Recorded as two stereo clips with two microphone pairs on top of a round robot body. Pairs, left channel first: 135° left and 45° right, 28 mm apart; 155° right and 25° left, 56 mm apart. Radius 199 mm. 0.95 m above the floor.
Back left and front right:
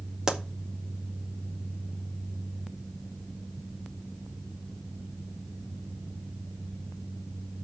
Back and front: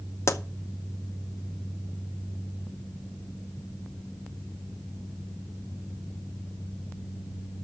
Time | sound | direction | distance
0.3 | a pop | 115° right | 1.2 m